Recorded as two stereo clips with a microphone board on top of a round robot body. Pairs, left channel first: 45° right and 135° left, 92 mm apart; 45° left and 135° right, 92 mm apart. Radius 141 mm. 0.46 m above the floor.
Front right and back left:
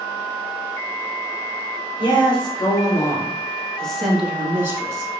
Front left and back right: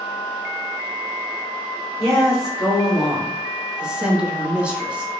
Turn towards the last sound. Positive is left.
turn(degrees=150)